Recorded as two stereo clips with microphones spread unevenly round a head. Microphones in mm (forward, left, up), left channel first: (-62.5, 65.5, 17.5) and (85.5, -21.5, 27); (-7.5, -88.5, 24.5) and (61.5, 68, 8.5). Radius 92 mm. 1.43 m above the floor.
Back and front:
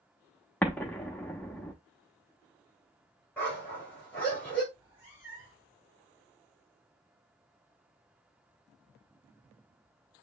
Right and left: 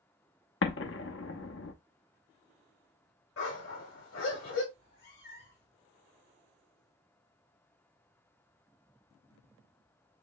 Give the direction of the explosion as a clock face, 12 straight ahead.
4 o'clock.